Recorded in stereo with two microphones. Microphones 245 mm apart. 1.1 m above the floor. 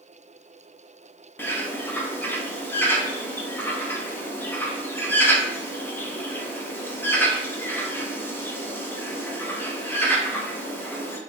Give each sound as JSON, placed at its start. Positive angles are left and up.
{"t": 1.4, "sound": "a bird", "side_deg": 10, "distance_m": 0.6}